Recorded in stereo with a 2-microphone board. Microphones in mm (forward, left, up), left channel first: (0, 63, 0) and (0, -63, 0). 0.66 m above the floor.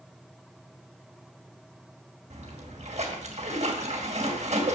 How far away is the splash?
About 2.5 m.